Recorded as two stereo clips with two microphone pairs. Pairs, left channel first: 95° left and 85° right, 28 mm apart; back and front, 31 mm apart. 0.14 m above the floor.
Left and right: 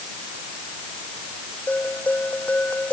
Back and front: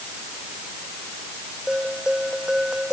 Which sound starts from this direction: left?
A bell, at 1.7 s.